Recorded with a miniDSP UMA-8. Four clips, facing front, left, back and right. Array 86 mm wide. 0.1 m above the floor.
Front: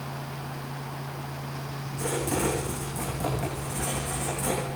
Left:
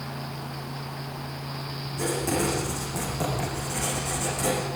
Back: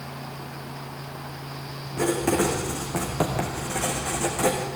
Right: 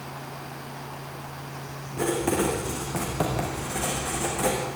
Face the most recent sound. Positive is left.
turn(degrees=-155)